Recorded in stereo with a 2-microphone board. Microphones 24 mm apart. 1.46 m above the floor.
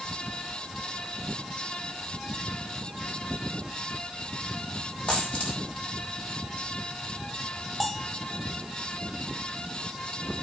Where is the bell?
15° left (ahead or behind), 1.4 m.